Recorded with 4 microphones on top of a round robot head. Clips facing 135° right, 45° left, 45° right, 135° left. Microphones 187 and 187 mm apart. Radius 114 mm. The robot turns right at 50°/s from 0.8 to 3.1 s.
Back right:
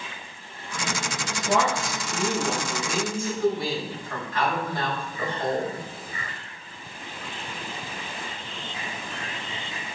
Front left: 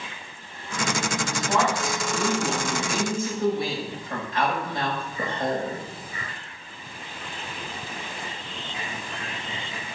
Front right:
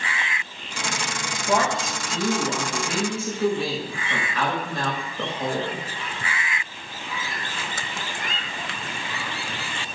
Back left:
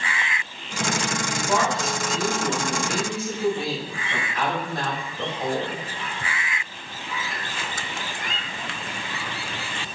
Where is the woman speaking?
115° right, 5.5 m; by 5.8 s 25° right, 5.5 m.